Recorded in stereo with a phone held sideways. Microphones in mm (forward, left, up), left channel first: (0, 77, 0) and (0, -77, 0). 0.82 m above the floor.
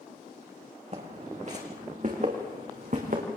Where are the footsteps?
45° right (ahead or behind), 3.5 m; by 3.2 s 60° right (ahead or behind), 4.5 m.